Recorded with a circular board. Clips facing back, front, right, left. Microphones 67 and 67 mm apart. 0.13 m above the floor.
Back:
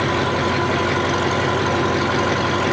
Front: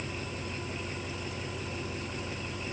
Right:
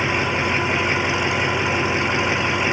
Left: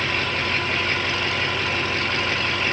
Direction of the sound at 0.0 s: 165° right.